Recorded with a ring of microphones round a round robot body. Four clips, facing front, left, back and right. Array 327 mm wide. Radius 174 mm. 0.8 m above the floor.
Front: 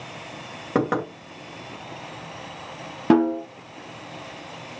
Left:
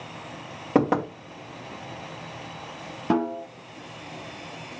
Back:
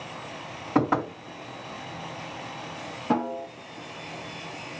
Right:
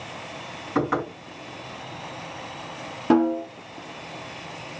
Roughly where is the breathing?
No breathing in this recording.